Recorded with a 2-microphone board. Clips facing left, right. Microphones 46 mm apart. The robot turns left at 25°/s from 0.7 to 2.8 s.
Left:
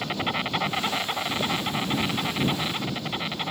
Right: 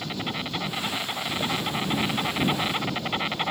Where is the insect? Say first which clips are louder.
Left 4 dB; 30° left; by 3.5 s 20° right.